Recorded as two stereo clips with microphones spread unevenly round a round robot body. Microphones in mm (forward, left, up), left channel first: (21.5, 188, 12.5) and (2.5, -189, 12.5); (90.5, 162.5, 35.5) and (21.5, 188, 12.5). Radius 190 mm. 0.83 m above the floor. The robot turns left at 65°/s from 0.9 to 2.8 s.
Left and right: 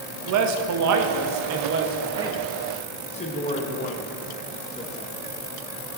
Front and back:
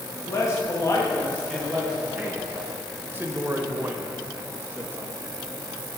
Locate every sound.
0.3 s a man speaking: 85° right, 0.8 m; by 5.1 s 155° left, 0.8 m